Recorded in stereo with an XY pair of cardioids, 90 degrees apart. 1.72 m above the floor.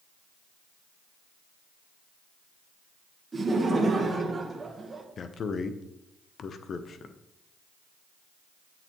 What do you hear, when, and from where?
3.3 s laughter: 35° right, 1.3 m
5.2 s a man speaking: 55° left, 0.8 m